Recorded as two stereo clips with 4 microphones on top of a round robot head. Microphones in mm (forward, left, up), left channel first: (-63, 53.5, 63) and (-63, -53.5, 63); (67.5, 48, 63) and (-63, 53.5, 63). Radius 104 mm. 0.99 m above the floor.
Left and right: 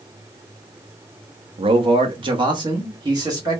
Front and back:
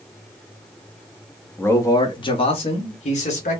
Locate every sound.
1.6 s a man speaking: 80° right, 0.7 m; by 3.6 s 30° right, 1.5 m